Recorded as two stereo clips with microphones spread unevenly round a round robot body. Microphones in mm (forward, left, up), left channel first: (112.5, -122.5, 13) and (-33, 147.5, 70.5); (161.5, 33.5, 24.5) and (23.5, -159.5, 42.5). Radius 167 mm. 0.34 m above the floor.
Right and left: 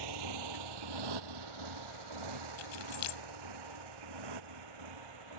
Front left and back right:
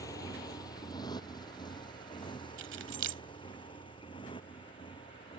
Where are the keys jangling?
90° right.